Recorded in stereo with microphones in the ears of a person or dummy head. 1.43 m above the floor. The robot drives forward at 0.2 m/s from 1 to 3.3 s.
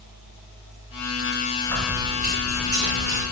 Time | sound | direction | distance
1.6 | keys jangling | 45° right (ahead or behind) | 1.4 m